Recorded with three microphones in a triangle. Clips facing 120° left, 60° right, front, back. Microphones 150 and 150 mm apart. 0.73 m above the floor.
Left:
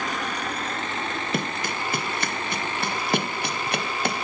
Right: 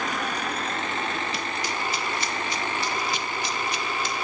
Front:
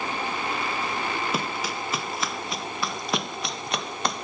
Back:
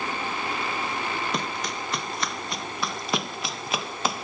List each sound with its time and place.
1.3 s running footsteps: 85° left; by 4.2 s 95° left